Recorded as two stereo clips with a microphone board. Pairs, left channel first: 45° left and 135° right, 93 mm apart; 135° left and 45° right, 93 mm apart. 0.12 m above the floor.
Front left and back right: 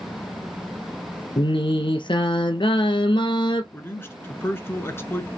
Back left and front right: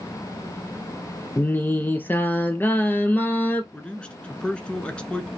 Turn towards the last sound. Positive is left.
turn(degrees=70)